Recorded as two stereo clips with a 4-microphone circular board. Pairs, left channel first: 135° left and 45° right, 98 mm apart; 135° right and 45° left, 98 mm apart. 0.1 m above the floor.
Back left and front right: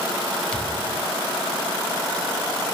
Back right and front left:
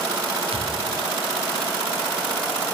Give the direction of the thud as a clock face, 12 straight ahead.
10 o'clock.